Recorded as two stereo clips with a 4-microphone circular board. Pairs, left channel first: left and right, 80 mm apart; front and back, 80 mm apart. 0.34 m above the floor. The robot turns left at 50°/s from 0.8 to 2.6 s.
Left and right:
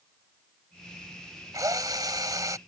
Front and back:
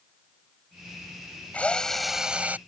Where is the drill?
65° right; by 2.6 s 115° right.